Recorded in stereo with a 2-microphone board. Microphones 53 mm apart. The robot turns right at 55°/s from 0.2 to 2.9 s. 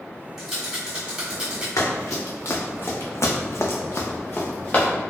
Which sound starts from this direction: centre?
A rattle, at 0.4 s.